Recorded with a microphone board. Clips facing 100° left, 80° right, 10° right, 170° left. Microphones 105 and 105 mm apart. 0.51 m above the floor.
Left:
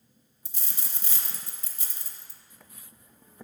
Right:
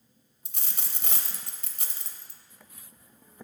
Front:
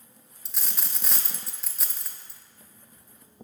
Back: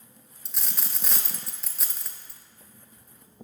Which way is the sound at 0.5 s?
100° right.